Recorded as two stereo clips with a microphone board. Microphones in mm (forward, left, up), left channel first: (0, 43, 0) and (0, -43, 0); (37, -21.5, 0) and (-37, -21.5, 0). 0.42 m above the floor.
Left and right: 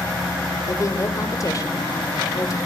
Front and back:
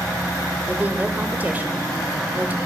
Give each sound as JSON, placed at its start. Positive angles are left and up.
{"t": 0.7, "sound": "a woman speaking", "azimuth_deg": 120, "distance_m": 1.2}